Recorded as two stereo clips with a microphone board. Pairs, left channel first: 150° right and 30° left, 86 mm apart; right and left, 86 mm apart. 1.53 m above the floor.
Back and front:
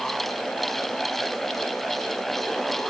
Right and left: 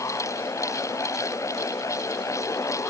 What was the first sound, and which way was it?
Only background noise.